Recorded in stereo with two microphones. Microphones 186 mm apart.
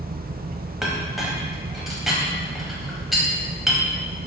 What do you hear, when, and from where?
0.8 s a clink: centre (ahead or behind), 0.9 m